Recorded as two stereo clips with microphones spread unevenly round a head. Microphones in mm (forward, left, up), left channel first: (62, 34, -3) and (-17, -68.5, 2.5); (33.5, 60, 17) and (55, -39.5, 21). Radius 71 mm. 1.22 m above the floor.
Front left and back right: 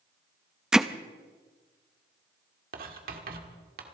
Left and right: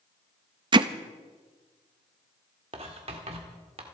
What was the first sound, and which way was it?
Hammering, 45° right.